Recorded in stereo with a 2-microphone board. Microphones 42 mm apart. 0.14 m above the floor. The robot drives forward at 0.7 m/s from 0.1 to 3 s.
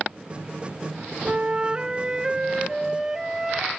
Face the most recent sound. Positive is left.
turn(degrees=-10)  # may be behind; listen again after turning